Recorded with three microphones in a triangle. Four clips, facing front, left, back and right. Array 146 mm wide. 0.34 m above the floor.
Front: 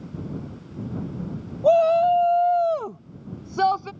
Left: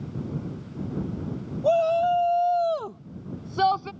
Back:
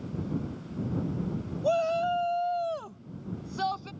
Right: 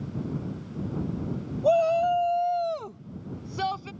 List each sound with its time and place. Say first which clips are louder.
1.6 s a shout: left 1 dB, front 10 dB; straight ahead; by 3.9 s 30° left